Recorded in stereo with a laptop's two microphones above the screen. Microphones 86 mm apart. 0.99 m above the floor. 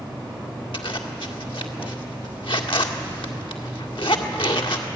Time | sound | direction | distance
0.7 | a zipper | 75° left (ahead or behind) | 2 m